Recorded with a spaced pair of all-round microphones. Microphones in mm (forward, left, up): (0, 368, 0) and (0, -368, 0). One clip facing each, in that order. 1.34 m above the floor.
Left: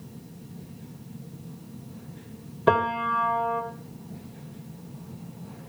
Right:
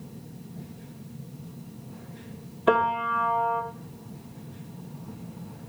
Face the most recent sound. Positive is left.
turn(degrees=65)  # may be behind; listen again after turning